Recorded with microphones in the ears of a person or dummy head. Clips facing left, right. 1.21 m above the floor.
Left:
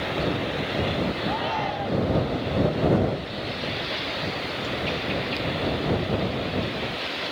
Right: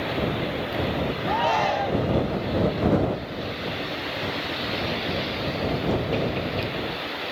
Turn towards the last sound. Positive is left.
turn(degrees=-65)  # may be behind; listen again after turning